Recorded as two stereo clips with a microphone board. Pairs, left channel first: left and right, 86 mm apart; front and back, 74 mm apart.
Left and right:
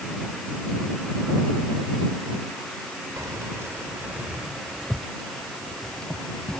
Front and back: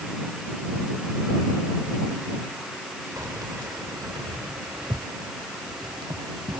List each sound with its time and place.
3.2 s keys jangling: 140° right; by 6.6 s 165° left